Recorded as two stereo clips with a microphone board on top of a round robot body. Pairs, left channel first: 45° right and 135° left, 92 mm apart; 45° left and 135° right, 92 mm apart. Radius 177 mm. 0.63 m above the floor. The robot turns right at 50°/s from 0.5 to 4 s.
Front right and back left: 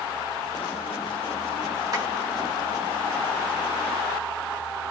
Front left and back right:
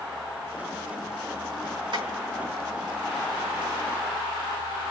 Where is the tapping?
175° right, 5 m; by 2.1 s 165° right, 5 m.